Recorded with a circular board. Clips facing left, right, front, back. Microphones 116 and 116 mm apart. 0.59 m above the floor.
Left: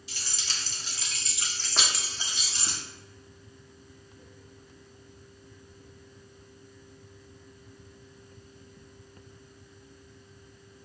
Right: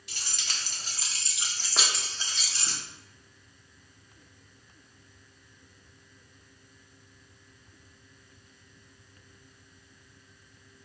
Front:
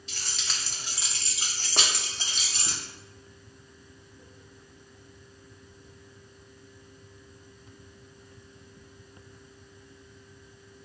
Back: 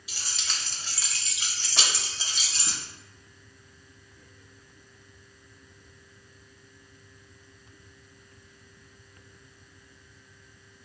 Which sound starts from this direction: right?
Keys jangling, at 0.1 s.